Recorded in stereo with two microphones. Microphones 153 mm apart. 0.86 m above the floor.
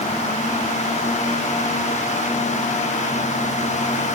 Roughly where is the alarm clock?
I don't hear an alarm clock.